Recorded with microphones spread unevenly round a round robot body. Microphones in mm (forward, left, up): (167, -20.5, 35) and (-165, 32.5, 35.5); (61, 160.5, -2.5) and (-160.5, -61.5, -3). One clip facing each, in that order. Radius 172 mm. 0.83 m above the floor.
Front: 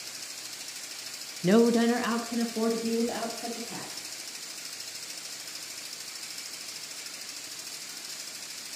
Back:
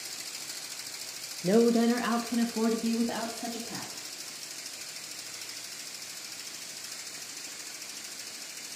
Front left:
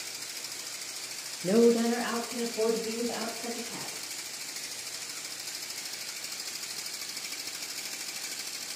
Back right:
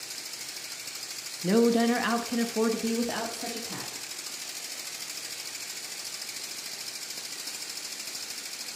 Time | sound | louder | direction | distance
1.4 | a woman speaking | front 1 dB, even | 60° right | 0.6 m